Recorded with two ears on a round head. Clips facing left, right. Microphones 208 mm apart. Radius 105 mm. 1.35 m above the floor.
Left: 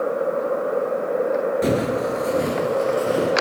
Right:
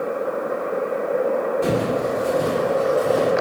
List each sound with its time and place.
1.6 s footsteps: 25° left (ahead or behind), 1.4 m; by 3.3 s 30° left (ahead or behind), 2 m